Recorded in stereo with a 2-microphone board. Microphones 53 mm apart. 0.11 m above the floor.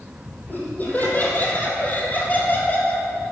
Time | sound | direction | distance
0.5 | laughter | 35° left (ahead or behind) | 4 m